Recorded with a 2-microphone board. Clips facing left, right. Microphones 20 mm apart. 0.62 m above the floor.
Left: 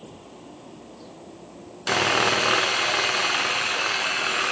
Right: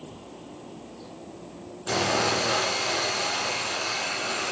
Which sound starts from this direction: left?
Sawing, at 1.9 s.